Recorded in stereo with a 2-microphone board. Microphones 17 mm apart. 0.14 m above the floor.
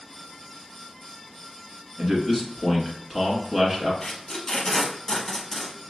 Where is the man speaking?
5° right (ahead or behind), 1.8 m.